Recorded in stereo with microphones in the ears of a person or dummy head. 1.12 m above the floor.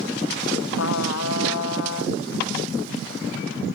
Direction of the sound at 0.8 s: 75° left (ahead or behind).